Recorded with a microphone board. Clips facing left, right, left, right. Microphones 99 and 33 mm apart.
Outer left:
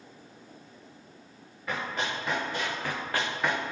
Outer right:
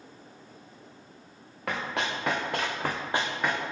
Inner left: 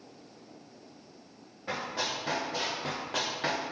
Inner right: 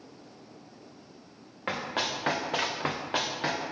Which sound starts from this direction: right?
Running footsteps, at 1.7 s.